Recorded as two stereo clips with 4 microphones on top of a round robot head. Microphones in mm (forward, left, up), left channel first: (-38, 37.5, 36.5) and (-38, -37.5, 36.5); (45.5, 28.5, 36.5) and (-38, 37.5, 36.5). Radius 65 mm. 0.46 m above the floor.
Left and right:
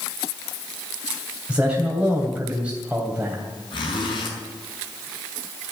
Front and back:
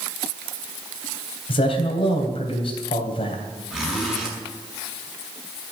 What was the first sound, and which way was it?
A man speaking, 10° right.